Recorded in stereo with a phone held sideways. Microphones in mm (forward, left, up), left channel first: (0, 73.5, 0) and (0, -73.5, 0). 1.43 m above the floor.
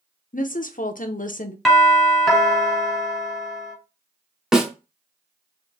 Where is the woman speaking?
65° left (ahead or behind), 0.7 m.